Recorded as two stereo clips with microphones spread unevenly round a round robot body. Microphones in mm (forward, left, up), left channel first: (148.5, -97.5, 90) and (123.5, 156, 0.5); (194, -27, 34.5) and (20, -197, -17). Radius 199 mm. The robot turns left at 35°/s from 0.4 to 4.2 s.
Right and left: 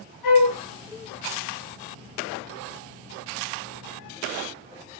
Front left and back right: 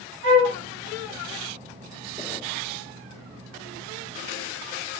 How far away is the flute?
About 3.5 m.